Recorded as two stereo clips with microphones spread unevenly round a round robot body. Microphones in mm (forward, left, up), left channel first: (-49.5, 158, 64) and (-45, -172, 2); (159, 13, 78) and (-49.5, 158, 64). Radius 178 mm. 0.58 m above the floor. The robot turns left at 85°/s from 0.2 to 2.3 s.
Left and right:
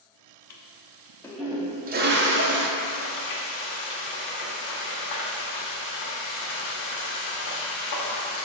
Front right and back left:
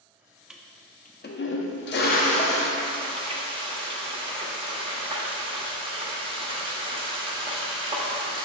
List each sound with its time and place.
0.5 s a toilet flushing: 65° left, 0.8 m; by 2.7 s 90° right, 0.8 m
2.8 s frying: 80° left, 1.6 m